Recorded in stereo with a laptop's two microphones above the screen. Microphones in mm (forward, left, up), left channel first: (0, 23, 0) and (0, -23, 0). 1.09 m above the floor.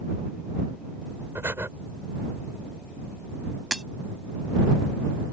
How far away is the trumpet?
I don't hear a trumpet.